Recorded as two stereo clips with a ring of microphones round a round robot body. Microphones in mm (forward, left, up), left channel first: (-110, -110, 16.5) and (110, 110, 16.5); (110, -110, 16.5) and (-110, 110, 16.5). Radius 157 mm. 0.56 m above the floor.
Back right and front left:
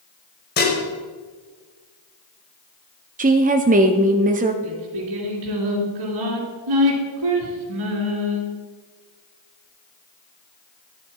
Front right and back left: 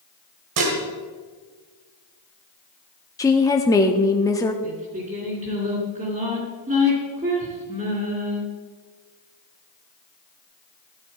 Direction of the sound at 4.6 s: 65° left.